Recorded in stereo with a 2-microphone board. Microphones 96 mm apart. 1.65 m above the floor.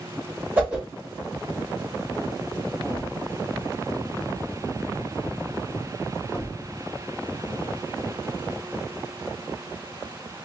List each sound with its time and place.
0.6 s a whoosh: 10° right (ahead or behind), 1.4 m
2.8 s a thud: 20° left (ahead or behind), 1.0 m